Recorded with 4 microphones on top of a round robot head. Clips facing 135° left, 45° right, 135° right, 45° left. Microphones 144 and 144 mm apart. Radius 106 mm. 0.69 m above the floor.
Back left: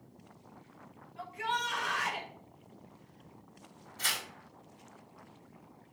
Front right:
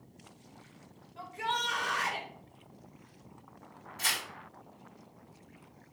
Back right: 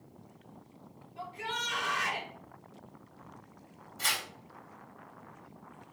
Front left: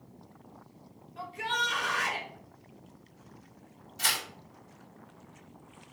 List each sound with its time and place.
1.2 s a shout: 10° left, 3.5 m
4.0 s tearing paper: 35° left, 4 m